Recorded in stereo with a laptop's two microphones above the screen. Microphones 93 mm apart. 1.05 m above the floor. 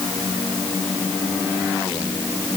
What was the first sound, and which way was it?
Only background noise.